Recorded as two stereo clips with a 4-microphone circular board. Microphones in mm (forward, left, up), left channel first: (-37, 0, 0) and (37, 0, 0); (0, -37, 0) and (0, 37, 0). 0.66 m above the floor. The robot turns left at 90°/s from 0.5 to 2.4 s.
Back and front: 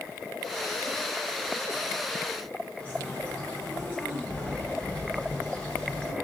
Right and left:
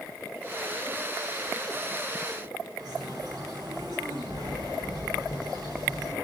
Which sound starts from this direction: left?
A bird, at 2.8 s.